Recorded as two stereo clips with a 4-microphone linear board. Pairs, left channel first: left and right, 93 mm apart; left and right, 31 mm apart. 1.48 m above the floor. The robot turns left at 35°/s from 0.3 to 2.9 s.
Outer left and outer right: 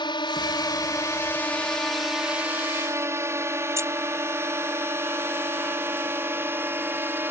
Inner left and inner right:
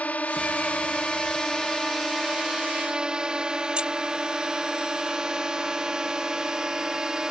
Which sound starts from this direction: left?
A drone, at 0.0 s.